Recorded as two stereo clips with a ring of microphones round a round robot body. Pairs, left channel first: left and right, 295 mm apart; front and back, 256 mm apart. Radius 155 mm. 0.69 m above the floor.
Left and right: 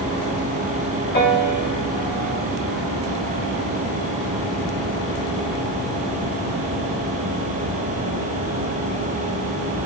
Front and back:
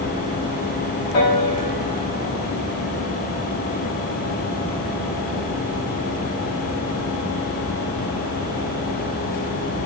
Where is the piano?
35° left, 3.5 m.